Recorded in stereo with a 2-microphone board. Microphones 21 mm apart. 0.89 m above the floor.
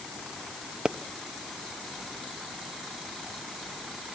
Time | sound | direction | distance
0.8 | a pop | 30° right (ahead or behind) | 0.8 m